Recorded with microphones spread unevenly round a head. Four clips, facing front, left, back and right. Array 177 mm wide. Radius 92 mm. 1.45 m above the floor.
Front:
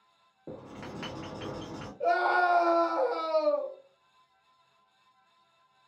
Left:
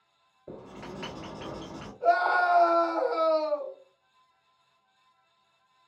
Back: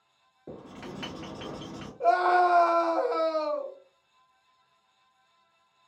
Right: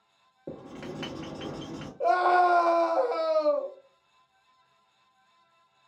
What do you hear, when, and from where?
0.5 s writing: 75° right, 1.6 m
2.0 s a scream: 100° right, 1.1 m